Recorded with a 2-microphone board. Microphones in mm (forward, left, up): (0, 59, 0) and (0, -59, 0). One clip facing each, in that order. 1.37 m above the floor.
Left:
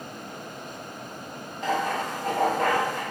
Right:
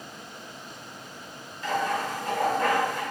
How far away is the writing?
About 1.9 m.